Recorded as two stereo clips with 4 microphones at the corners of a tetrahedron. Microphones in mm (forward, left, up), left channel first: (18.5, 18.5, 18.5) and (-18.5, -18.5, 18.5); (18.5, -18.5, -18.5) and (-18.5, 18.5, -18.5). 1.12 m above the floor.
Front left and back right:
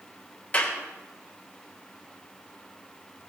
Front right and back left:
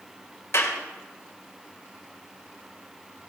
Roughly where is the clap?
Ahead.